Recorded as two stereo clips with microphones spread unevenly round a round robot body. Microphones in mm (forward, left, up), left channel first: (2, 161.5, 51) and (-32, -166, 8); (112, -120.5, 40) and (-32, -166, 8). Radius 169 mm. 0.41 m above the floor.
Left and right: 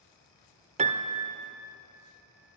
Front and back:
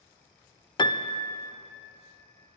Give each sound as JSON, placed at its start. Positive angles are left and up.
{"t": 0.8, "sound": "a piano", "azimuth_deg": -50, "distance_m": 0.6}